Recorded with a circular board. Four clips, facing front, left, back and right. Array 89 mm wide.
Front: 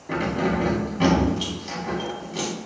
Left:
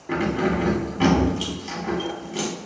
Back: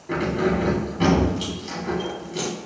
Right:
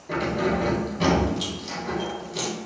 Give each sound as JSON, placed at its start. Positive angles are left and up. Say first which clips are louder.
{"t": 0.1, "sound": "keys jangling", "louder": "left 2 dB, back 1 dB", "azimuth_deg": 80, "distance_m": 0.8}